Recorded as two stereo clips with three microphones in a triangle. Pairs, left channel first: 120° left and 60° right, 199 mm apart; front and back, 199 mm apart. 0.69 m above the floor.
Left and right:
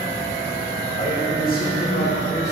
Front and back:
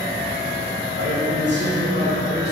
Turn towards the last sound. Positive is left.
turn(degrees=140)